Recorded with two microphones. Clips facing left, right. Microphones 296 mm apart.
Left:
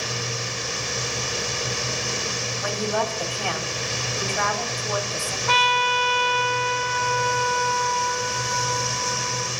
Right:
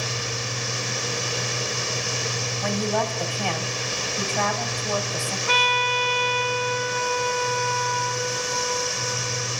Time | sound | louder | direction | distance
2.6 | a woman speaking | right 1 dB | 15° left (ahead or behind) | 3 m
5.5 | a trumpet | even | 60° left (ahead or behind) | 1.7 m